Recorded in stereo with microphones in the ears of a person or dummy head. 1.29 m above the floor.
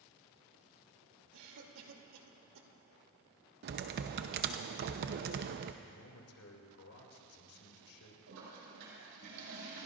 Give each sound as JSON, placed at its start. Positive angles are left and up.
{"t": 1.3, "sound": "a cough", "side_deg": -75, "distance_m": 3.0}
{"t": 3.6, "sound": "typing on a keyboard", "side_deg": -55, "distance_m": 0.8}
{"t": 5.8, "sound": "a man speaking", "side_deg": 70, "distance_m": 2.5}
{"t": 8.3, "sound": "a toilet flushing", "side_deg": -80, "distance_m": 5.5}